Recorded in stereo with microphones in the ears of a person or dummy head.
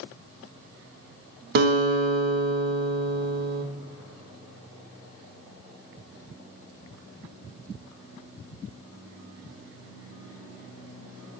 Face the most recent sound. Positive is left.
turn(degrees=-55)  # may be behind; listen again after turning